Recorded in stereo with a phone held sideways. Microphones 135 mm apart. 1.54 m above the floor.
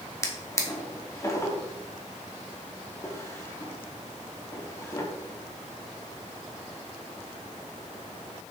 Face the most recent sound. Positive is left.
turn(degrees=20)  # may be behind; listen again after turning